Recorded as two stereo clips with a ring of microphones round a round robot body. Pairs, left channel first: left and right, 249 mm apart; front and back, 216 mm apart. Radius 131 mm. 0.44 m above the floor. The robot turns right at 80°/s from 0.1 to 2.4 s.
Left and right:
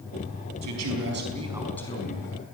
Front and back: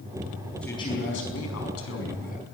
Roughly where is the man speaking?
Right.